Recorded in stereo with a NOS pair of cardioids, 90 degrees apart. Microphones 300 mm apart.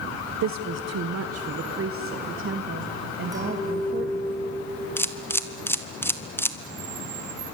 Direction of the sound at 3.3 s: 10° right.